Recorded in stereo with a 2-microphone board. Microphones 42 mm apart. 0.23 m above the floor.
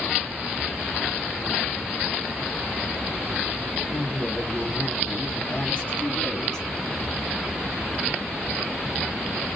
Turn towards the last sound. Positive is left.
turn(degrees=15)  # may be behind; listen again after turning